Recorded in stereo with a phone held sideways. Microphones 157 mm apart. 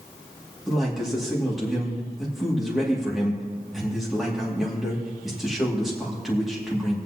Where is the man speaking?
Centre (ahead or behind), 2.5 m.